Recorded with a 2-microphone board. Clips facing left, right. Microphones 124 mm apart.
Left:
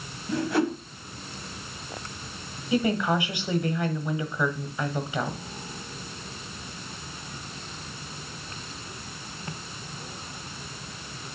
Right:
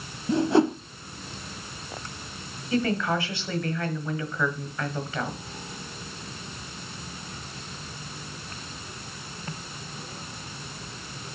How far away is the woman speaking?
About 1.2 m.